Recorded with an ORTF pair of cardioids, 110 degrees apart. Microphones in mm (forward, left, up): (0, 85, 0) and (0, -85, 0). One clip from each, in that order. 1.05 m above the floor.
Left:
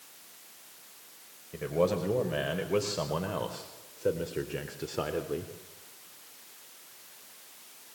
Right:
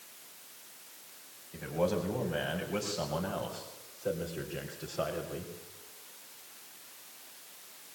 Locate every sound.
1.5 s a man speaking: 60° left, 5.5 m